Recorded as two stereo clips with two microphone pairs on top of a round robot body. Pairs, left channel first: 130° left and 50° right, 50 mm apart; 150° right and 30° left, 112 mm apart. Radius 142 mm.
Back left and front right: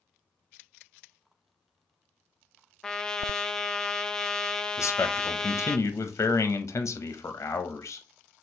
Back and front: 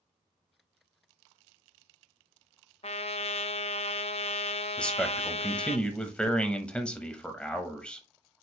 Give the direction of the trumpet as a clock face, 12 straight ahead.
5 o'clock.